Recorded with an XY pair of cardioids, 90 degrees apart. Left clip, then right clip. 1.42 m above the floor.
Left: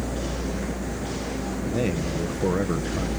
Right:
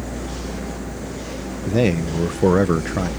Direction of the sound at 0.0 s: 10° left.